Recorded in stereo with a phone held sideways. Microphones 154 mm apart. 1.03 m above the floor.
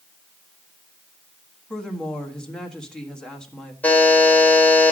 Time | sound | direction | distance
1.7 | a woman speaking | 5° left (ahead or behind) | 1.5 m
3.8 | a buzzer | 10° left (ahead or behind) | 2.5 m